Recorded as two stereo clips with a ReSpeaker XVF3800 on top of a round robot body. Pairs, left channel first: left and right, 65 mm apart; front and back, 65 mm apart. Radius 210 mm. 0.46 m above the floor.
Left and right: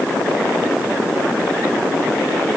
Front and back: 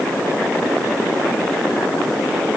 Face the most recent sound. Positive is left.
No sound to turn to.